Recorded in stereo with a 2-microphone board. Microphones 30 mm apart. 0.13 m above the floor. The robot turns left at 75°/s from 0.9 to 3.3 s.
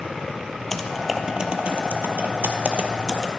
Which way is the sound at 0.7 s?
5° left (ahead or behind).